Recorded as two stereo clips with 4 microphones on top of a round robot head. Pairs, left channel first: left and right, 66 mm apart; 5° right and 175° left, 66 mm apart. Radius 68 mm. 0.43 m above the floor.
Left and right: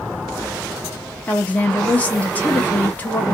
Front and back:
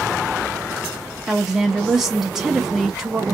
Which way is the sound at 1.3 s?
100° left.